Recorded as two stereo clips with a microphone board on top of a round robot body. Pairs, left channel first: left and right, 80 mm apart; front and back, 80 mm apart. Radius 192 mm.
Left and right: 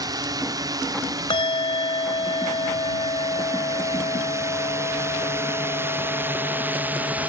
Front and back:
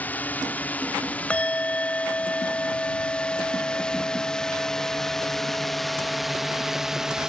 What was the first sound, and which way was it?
A drone, 65° right.